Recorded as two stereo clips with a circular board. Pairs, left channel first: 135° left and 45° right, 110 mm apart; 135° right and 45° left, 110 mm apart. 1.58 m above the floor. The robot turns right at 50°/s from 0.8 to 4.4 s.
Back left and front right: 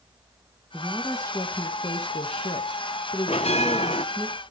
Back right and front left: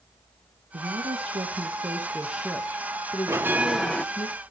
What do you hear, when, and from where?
0.7 s a woman speaking: 55° left, 2 m; by 4.3 s 130° right, 2 m
3.3 s a bell: 110° left, 1.0 m; by 4.0 s 145° left, 1.0 m